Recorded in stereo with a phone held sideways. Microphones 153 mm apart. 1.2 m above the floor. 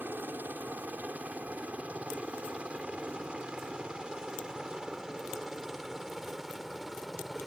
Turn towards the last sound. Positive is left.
turn(degrees=0)  # may be behind; listen again after turning